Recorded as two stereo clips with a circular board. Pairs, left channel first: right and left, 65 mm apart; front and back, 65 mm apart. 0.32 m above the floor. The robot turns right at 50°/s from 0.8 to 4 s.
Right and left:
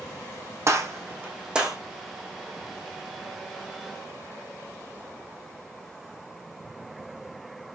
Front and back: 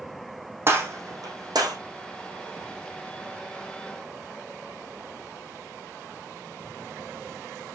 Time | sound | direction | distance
0.7 | a gunshot | 130° left | 5 m